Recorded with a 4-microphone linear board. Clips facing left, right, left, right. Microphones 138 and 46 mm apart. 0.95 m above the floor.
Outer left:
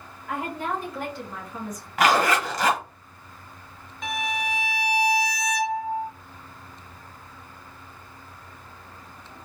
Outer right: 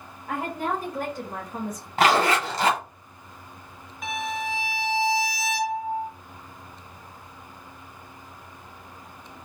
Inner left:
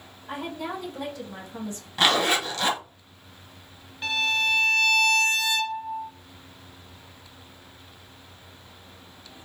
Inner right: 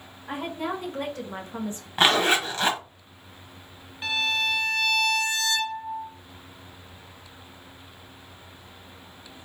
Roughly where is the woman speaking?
Right.